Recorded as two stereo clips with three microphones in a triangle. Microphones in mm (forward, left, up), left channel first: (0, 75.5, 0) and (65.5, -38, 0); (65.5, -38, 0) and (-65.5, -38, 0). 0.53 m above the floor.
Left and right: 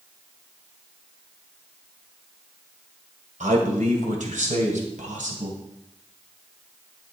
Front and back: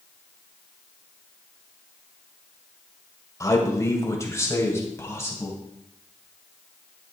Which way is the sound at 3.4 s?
65° right.